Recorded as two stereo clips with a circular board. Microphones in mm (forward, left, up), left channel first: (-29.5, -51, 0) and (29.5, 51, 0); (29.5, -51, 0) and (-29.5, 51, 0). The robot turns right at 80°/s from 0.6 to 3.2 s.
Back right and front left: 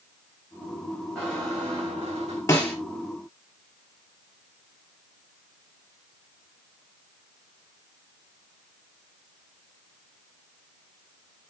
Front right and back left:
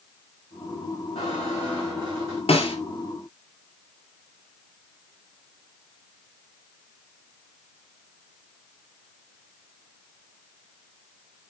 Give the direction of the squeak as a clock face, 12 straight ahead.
1 o'clock.